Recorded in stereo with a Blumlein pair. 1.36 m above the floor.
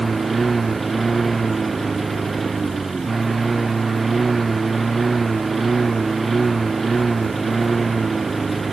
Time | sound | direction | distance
0.0 | a lawn mower | 10° right | ?